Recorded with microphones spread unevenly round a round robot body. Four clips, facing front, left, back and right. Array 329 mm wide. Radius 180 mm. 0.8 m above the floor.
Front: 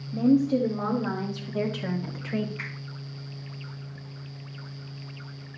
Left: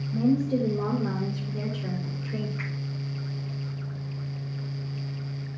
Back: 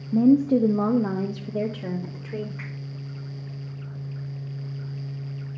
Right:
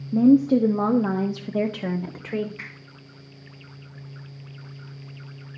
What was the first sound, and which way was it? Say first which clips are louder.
A woman speaking: right 8 dB, back 4 dB; 130° right.